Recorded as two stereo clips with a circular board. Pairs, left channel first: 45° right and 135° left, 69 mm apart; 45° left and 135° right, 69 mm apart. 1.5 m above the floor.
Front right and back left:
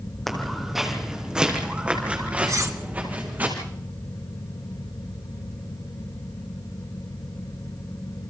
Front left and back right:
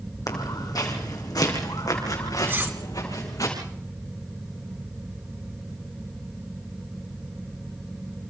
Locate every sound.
0.3 s footsteps: 40° left, 3.5 m; by 3.5 s 75° left, 6 m
2.5 s cutlery clinking: 170° left, 1.5 m